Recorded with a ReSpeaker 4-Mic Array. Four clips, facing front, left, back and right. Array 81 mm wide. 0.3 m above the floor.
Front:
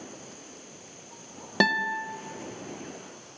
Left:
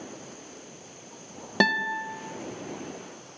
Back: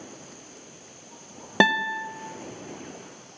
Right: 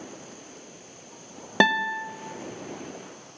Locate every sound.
1.6 s a guitar: 135° right, 0.6 m